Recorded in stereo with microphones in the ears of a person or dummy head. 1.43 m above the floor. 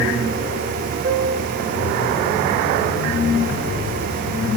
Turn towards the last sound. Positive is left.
turn(degrees=-55)  # may be behind; listen again after turning